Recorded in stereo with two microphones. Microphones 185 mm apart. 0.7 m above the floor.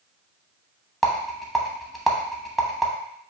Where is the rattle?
Centre (ahead or behind), 0.9 m.